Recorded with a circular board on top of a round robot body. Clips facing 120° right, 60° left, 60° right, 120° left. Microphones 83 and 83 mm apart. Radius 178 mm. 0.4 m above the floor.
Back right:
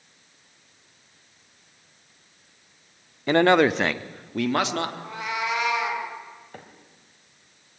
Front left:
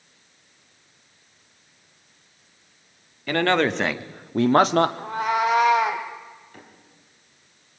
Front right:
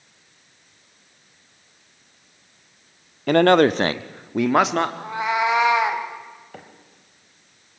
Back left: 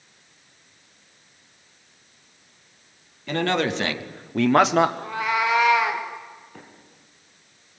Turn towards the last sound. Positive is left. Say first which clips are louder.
# back right 3 dB, front right 7 dB
turn(degrees=-75)